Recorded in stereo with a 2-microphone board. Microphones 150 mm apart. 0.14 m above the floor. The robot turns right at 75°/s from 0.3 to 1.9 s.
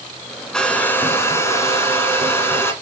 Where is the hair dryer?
5° left (ahead or behind), 1.3 m; by 2.7 s 15° left (ahead or behind), 1.3 m.